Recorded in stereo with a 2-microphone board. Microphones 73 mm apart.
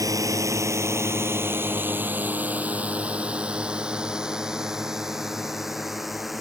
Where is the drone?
50° right (ahead or behind); by 6.4 s centre (ahead or behind).